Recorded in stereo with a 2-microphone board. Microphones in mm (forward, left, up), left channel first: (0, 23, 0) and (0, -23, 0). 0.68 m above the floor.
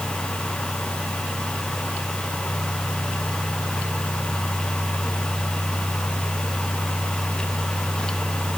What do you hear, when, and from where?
Only background noise.